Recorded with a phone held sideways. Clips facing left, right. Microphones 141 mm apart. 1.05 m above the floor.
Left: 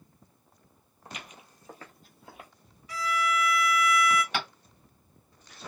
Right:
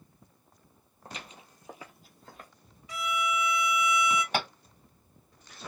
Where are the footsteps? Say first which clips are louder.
Even; 40° right (ahead or behind), 1.3 m; by 2.5 s 15° left (ahead or behind), 1.2 m.